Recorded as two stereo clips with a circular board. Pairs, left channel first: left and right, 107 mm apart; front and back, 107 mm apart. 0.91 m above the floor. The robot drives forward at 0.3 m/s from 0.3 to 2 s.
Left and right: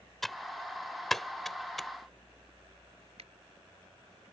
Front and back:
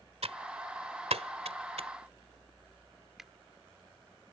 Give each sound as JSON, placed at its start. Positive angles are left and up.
{"t": 0.2, "sound": "typing on a keyboard", "azimuth_deg": 175}
{"t": 3.2, "sound": "a finger snap", "azimuth_deg": -90}